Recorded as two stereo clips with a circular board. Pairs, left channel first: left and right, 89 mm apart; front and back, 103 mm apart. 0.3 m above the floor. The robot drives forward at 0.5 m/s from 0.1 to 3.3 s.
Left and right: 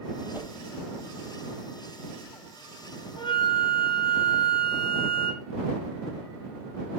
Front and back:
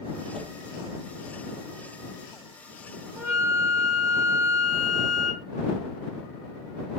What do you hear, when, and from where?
0.3 s a whoosh: 160° right, 1.4 m
3.2 s a flute: 120° left, 3 m